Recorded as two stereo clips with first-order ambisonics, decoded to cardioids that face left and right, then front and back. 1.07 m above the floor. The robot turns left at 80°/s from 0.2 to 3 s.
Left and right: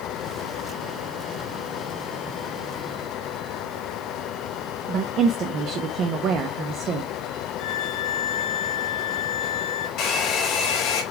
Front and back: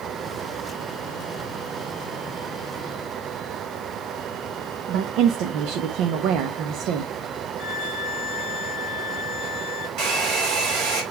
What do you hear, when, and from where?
4.9 s a woman speaking: 140° right, 0.9 m
7.6 s a violin: 145° left, 3.5 m
10.0 s a hair dryer: 140° left, 3.5 m